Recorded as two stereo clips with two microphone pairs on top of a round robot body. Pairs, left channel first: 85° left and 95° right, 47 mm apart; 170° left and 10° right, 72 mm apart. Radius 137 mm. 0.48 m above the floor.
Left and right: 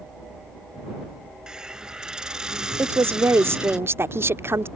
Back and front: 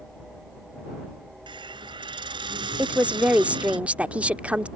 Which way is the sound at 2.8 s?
90° right.